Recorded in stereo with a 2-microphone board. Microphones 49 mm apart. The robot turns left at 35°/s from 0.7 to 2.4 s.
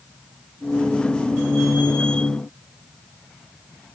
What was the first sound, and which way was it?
Only background noise.